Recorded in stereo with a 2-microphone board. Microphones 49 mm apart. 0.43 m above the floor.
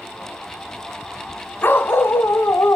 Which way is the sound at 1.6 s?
45° left (ahead or behind).